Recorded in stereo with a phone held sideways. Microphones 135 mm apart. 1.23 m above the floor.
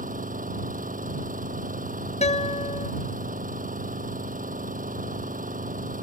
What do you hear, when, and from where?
0.0 s an engine running: 85° right
2.2 s a guitar: 55° left (ahead or behind)